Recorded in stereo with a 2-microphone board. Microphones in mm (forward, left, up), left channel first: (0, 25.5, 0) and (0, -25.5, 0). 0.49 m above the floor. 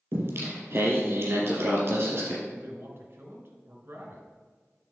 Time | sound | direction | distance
0.1 | singing | 45° right (ahead or behind) | 2.5 m
2.5 | a man speaking | 45° right (ahead or behind) | 2 m